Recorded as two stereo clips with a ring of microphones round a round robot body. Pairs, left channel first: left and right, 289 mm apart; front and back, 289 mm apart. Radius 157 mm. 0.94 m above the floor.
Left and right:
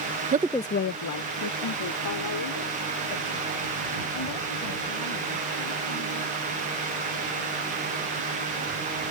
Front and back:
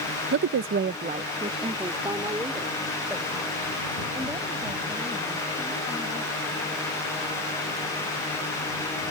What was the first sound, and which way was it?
A woman speaking, 140° right.